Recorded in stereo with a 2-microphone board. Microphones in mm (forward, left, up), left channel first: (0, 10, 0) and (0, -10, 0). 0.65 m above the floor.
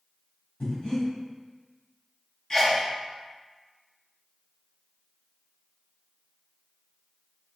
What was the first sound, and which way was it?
Breathing, 80° left.